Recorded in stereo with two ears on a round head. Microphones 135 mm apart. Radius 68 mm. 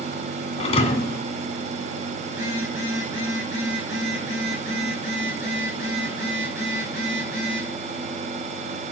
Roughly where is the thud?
Left.